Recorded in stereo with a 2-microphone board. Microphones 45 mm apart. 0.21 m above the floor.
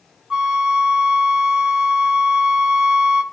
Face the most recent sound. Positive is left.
turn(degrees=-15)  # may be behind; listen again after turning